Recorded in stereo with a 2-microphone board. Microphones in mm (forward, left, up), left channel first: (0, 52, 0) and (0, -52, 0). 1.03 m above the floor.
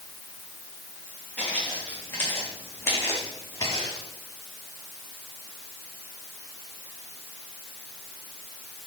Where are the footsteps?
15° left (ahead or behind), 4.5 m; by 4.1 s 35° left (ahead or behind), 3.5 m.